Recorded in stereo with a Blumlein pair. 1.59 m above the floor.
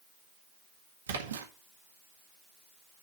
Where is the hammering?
No hammering in this recording.